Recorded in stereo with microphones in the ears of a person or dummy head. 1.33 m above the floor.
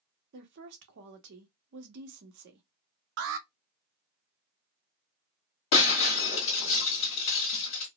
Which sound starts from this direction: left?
Breaking glass, at 5.7 s.